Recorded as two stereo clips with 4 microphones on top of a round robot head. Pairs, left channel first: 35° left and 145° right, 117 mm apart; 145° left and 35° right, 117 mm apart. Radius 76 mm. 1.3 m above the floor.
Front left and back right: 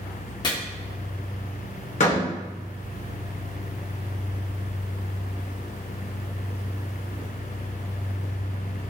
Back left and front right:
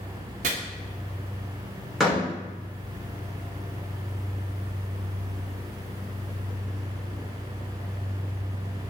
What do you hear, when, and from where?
0.4 s chopping: 20° right, 1.4 m
2.0 s a door slam: 55° left, 3 m